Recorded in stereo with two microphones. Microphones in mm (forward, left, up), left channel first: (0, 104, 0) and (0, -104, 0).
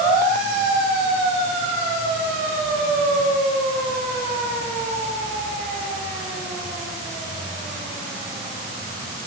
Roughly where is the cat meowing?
I don't hear a cat meowing.